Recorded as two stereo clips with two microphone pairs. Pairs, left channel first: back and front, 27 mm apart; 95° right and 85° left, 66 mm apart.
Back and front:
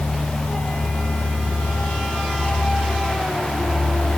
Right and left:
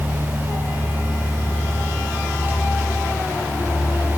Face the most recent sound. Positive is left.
No sound to turn to.